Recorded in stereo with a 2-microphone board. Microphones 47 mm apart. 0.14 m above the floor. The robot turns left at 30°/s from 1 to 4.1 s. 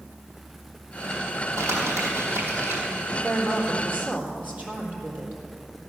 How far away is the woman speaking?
About 3.5 m.